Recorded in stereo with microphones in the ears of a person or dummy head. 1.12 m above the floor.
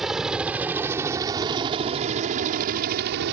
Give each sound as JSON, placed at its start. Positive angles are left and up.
{"t": 0.0, "sound": "a helicopter", "side_deg": 0}